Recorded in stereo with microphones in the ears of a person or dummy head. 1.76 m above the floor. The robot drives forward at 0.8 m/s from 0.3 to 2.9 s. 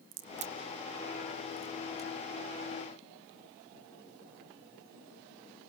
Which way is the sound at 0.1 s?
40° right (ahead or behind).